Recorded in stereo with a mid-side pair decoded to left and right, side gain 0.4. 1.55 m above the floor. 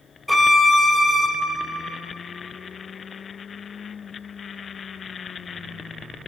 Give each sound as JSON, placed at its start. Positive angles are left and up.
{"t": 0.3, "sound": "a violin", "azimuth_deg": 5, "distance_m": 1.4}